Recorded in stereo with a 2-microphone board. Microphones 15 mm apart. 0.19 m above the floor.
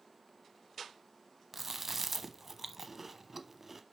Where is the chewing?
15° right (ahead or behind), 0.7 m.